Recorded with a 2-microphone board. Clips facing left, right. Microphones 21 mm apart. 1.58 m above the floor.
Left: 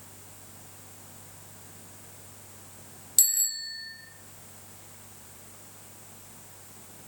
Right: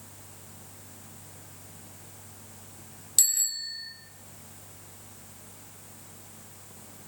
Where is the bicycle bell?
Centre (ahead or behind), 2.5 m.